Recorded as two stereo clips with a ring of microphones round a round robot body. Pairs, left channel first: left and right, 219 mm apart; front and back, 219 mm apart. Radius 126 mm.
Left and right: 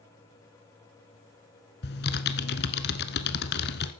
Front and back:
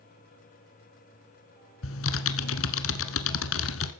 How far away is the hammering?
I don't hear hammering.